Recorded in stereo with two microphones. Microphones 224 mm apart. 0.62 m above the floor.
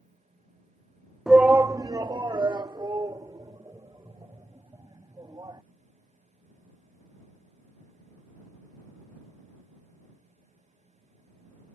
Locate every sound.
1.3 s a shout: centre (ahead or behind); by 5.6 s 15° right (ahead or behind)